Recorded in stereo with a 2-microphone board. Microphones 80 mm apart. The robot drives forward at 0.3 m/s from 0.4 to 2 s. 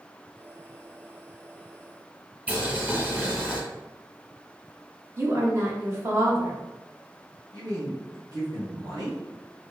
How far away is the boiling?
About 1.3 m.